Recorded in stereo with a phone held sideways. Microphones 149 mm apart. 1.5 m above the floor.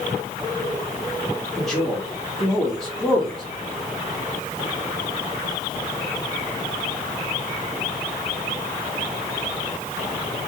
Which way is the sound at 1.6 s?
5° left (ahead or behind).